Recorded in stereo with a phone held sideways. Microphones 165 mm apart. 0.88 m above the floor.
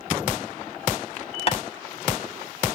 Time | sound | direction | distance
1.5 | tapping | 40° left (ahead or behind) | 1.6 m